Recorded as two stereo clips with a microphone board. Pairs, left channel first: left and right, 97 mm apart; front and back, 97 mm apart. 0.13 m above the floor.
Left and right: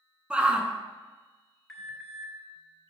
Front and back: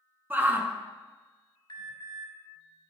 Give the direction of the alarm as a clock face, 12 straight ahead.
12 o'clock.